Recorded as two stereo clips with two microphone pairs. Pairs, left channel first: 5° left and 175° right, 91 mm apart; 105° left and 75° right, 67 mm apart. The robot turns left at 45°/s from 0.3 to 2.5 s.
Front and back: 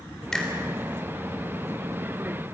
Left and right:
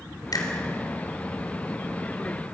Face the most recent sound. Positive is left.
turn(degrees=-10)